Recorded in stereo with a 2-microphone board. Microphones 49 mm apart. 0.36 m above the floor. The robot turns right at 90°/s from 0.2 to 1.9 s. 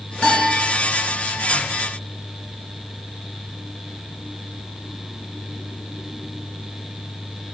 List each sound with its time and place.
0.2 s a piano: 155° left, 3 m; by 0.7 s 165° right, 3 m